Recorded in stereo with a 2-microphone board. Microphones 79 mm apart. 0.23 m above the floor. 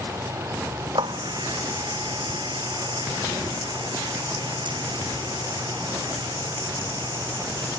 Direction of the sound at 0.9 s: 80° right.